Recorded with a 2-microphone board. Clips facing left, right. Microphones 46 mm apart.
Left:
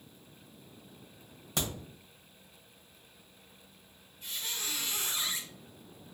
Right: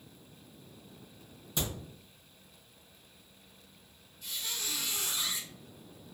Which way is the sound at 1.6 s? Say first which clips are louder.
Left 1 dB; 65° left (ahead or behind).